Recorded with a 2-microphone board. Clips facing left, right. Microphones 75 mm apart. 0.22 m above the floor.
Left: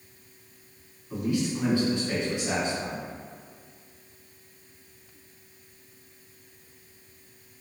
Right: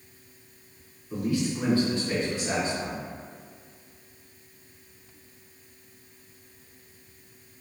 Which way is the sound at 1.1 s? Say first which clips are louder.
Even; 25° left (ahead or behind).